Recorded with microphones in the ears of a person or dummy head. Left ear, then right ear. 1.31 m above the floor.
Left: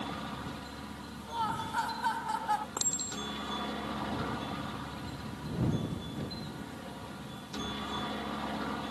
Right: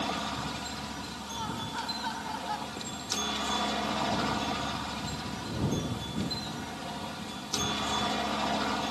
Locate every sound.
0.0 s a helicopter: 25° right (ahead or behind)
1.3 s laughter: 35° left (ahead or behind)
2.8 s a clink: 50° left (ahead or behind)